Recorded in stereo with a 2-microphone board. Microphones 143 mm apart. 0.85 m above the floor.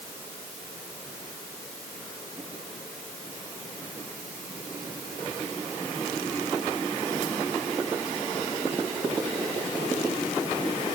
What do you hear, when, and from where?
Only background noise.